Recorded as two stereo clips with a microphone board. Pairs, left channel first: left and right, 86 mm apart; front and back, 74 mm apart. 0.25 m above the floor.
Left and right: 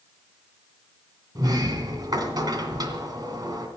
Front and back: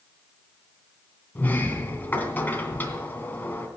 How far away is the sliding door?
About 2 m.